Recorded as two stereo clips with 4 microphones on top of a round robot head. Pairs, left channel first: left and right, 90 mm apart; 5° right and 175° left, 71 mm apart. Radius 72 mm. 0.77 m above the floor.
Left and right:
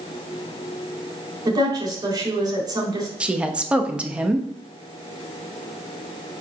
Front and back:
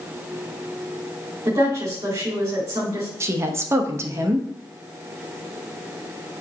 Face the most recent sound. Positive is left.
turn(degrees=-160)